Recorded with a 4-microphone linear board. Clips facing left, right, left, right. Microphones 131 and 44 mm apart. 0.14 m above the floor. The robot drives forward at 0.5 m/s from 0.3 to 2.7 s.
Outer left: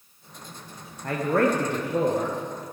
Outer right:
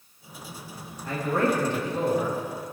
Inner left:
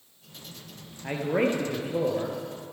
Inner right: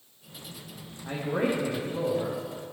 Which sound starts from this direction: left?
A man speaking, at 1.0 s.